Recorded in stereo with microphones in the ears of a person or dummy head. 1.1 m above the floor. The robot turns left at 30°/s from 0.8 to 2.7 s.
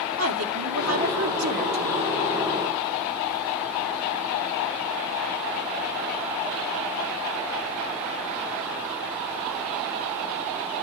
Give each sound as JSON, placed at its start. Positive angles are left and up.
{"t": 0.2, "sound": "a woman speaking", "azimuth_deg": -105, "distance_m": 2.5}